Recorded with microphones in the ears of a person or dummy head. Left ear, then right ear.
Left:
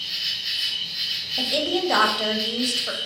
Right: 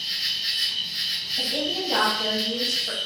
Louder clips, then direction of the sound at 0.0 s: Right 1 dB; 65° right (ahead or behind).